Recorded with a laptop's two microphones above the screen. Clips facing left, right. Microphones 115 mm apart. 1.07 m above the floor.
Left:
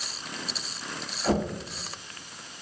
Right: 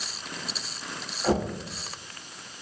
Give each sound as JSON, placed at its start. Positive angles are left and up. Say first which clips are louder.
{"t": 1.2, "sound": "knocking", "louder": "right 1 dB", "side_deg": -10, "distance_m": 1.4}